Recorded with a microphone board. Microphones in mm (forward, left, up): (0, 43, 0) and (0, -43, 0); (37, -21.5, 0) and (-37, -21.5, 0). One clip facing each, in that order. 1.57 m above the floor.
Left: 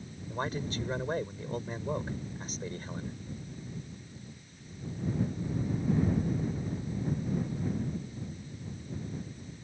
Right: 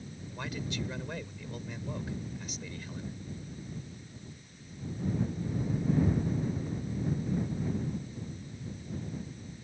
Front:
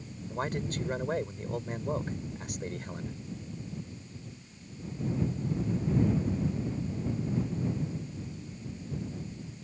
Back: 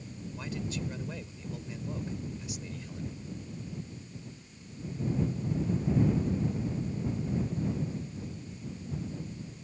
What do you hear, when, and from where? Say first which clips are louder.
0.3 s a man speaking: left 5 dB, front 5 dB; 40° left